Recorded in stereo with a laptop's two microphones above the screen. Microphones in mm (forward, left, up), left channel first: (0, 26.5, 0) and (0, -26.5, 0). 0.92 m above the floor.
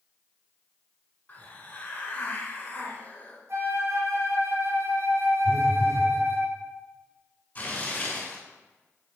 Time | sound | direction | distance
1.3 | a hiss | 25° left (ahead or behind) | 2 m
3.5 | a flute | 60° right (ahead or behind) | 2 m
5.5 | a phone buzzing | 65° right (ahead or behind) | 1.5 m
7.5 | tearing paper | 35° left (ahead or behind) | 2.5 m